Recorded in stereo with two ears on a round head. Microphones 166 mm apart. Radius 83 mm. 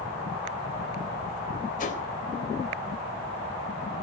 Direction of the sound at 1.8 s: 45° left (ahead or behind).